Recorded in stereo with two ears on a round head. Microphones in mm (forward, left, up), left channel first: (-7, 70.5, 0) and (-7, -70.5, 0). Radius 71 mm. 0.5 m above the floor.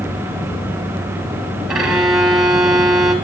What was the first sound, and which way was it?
A violin, 5° right (ahead or behind).